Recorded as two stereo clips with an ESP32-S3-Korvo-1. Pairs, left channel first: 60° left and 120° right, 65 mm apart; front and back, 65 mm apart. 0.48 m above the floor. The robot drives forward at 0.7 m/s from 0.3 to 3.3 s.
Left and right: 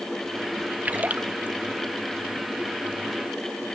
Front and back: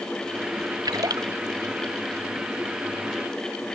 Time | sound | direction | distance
0.8 | a splash | 175° left | ?